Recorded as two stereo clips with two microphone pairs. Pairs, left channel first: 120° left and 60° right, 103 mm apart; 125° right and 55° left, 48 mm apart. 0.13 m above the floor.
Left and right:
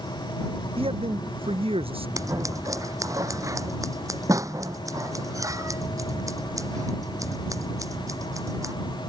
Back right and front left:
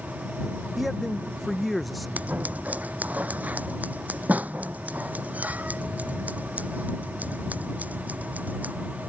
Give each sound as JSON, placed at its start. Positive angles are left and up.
{"t": 0.8, "sound": "a man speaking", "azimuth_deg": -35}
{"t": 2.2, "sound": "scissors", "azimuth_deg": -5}